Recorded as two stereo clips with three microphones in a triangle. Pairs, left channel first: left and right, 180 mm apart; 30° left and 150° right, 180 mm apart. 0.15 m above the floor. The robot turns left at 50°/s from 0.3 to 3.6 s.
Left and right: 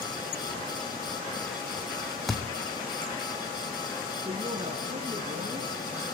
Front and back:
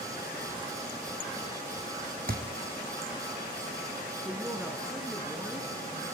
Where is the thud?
Straight behind, 1.5 m; by 2.4 s 175° left, 1.5 m.